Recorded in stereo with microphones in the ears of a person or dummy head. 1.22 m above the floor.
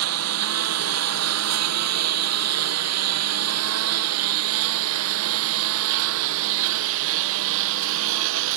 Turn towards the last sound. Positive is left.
turn(degrees=-75)  # may be behind; listen again after turning